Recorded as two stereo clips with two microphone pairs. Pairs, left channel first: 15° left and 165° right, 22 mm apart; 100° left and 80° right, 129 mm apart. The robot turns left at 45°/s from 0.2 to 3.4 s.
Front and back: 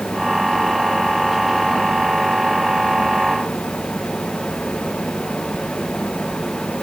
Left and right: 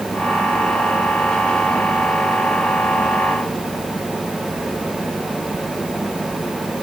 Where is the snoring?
I don't hear snoring.